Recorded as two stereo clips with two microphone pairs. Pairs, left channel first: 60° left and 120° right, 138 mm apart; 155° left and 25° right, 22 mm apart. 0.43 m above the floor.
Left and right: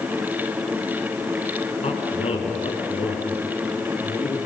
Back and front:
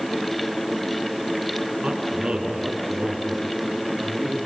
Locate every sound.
1.8 s a man speaking: 15° left, 4 m; by 4.4 s 5° left, 5.5 m